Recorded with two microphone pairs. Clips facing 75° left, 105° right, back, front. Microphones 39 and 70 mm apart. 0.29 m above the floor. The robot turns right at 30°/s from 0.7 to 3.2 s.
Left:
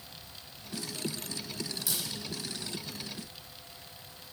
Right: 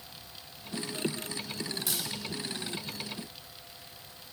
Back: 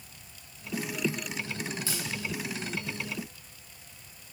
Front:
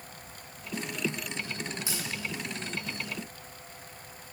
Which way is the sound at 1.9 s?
70° right.